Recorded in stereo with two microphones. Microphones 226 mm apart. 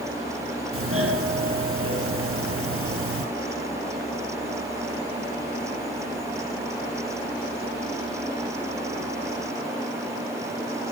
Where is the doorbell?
75° right (ahead or behind), 5.5 m.